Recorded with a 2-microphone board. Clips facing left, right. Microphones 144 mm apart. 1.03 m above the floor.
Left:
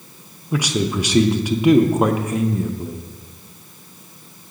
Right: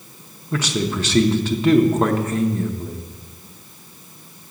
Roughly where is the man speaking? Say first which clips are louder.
Left 2 dB; centre.